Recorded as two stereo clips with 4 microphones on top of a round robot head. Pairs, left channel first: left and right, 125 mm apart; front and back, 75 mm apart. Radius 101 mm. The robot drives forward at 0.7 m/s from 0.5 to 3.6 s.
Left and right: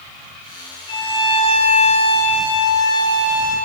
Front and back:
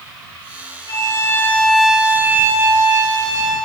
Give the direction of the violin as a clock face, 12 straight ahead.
11 o'clock.